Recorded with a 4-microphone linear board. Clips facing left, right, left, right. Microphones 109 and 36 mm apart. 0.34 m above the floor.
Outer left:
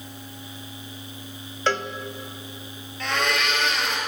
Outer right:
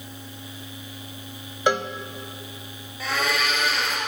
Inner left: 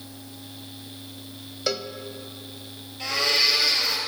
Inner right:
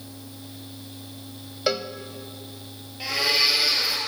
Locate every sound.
1.7 s a cowbell: 15° right (ahead or behind), 0.6 m
3.0 s a blender: 5° right (ahead or behind), 2.5 m